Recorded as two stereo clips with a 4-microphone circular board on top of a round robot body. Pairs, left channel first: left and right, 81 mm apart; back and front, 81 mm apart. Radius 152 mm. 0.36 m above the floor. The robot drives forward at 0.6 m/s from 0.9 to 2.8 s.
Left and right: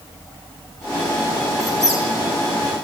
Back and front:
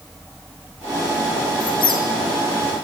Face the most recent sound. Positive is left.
turn(degrees=175)